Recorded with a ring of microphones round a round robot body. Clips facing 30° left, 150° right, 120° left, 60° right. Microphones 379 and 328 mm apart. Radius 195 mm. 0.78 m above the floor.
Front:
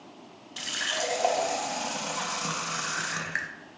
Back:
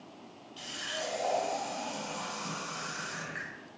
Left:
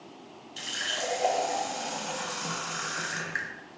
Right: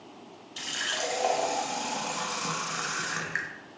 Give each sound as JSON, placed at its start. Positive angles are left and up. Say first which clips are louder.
{"t": 0.6, "sound": "a running tap", "louder": "front 5 dB, right 1 dB", "azimuth_deg": 15, "distance_m": 0.8}